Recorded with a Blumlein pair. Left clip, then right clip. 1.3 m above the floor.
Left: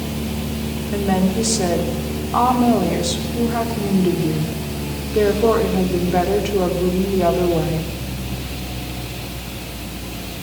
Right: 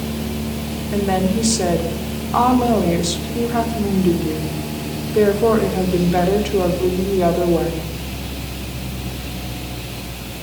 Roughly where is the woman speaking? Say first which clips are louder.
Right 1 dB; ahead.